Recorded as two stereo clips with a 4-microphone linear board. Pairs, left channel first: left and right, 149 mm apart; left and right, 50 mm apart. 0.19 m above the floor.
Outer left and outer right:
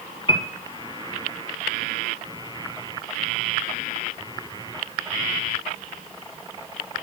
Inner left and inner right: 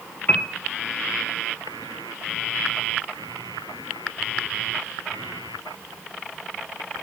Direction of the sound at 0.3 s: 35° left (ahead or behind).